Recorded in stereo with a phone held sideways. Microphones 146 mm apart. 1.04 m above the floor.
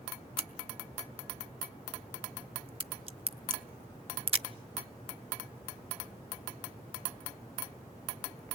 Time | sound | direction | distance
0.4 | a crack | 40° right (ahead or behind) | 0.7 m